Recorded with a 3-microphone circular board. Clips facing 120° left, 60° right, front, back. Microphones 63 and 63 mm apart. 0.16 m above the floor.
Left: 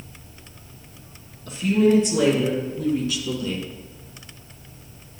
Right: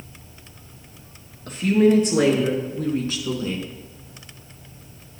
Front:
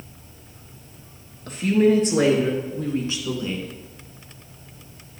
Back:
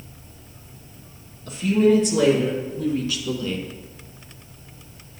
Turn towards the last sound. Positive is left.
turn(degrees=-65)